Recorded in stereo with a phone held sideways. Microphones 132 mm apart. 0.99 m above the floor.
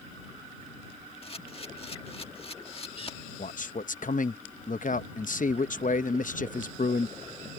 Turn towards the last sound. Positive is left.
turn(degrees=70)  # may be behind; listen again after turning